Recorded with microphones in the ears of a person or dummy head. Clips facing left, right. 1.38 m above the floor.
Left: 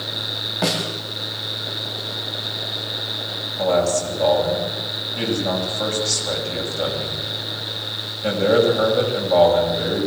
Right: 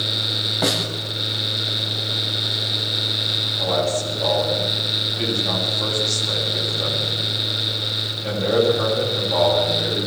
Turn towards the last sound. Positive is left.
turn(degrees=75)  # may be behind; listen again after turning